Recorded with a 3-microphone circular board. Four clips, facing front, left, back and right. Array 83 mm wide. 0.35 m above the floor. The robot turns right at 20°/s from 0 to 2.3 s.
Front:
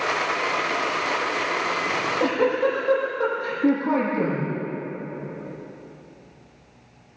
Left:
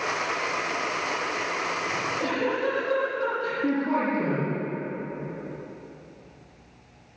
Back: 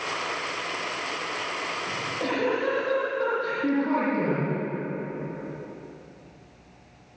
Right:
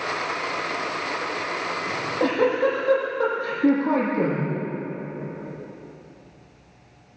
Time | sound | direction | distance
1.9 | a giggle | 80° right | 10 m